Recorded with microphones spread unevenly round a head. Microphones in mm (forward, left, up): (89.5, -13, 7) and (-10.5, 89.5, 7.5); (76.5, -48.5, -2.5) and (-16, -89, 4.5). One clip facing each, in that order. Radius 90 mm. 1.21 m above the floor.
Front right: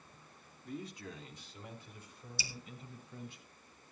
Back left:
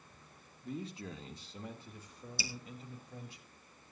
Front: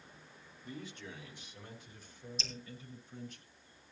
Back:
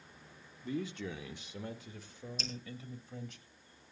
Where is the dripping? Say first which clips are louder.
Back left 5 dB, back 7 dB; 135° left, 2.5 m.